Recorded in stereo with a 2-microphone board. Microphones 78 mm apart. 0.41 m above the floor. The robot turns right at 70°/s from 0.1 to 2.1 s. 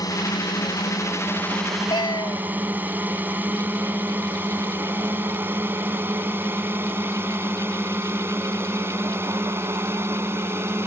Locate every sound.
0.0 s a drone: 55° left (ahead or behind); by 10.9 s 30° right (ahead or behind)
1.9 s a cat meowing: 80° left; by 2.4 s 70° left (ahead or behind)